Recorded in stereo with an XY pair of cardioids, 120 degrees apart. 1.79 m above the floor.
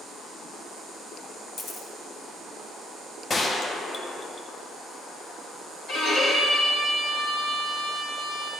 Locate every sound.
1.6 s a camera shutter: 50° left, 1.7 m
3.3 s a gunshot: 35° left, 0.9 m
5.9 s a violin: 60° left, 3 m